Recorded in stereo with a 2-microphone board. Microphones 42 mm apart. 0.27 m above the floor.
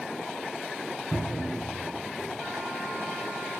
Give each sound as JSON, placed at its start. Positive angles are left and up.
{"t": 1.1, "sound": "a cupboard door", "side_deg": 70, "distance_m": 1.8}